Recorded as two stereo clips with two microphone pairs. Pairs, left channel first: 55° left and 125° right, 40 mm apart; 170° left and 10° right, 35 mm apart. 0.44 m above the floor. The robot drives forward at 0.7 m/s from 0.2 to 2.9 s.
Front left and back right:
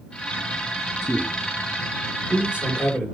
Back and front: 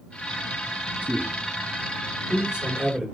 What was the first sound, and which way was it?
A man speaking, 45° right.